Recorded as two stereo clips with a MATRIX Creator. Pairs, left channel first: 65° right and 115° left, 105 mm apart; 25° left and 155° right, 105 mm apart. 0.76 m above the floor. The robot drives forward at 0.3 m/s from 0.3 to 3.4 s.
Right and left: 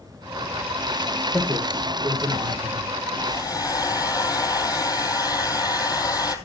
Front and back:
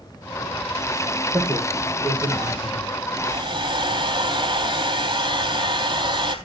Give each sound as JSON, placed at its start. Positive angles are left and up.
{"t": 1.3, "sound": "a man speaking", "azimuth_deg": 160, "distance_m": 3.0}
{"t": 3.2, "sound": "a hair dryer", "azimuth_deg": -125, "distance_m": 3.0}